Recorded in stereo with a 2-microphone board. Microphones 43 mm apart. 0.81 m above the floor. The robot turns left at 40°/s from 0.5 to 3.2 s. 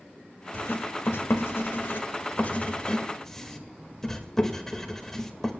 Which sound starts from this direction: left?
Writing, at 0.5 s.